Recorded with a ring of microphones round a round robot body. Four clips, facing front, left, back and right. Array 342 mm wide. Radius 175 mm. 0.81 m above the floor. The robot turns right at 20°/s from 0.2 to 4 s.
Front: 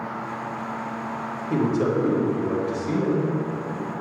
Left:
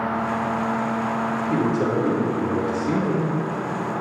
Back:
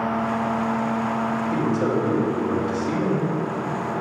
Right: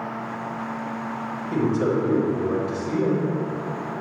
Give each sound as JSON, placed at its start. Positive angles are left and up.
{"t": 1.5, "sound": "a man speaking", "azimuth_deg": 50, "distance_m": 2.5}